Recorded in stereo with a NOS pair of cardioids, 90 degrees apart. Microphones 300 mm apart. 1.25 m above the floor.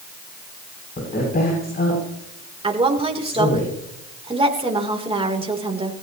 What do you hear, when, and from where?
1.0 s a woman speaking: 30° left, 8 m
2.6 s a woman speaking: 20° right, 3.5 m